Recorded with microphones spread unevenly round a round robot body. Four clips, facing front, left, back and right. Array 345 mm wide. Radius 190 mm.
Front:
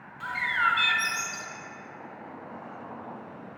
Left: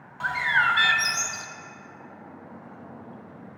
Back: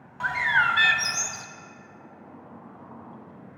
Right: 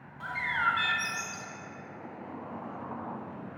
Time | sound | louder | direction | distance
0.2 | a bird | left 7 dB, back 4 dB | 140° left | 0.8 m